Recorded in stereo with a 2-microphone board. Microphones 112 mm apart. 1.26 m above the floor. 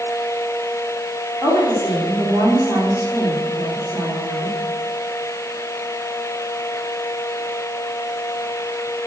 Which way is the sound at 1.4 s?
15° right (ahead or behind).